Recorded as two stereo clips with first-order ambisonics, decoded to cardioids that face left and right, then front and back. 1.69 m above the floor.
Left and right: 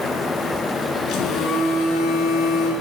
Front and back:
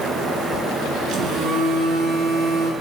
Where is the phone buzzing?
140° left, 2.5 m.